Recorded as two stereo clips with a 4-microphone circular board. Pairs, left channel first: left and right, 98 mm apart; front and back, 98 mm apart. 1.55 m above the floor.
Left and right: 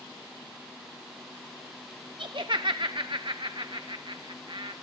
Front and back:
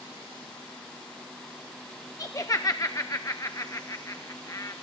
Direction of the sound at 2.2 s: 55° right.